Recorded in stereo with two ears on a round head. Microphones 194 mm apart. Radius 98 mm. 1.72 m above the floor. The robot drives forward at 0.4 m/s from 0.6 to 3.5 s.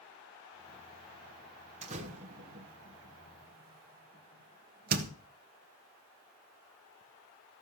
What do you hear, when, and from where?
1.8 s a door slam: 30° right (ahead or behind), 2 m; by 5.1 s 45° right (ahead or behind), 1.6 m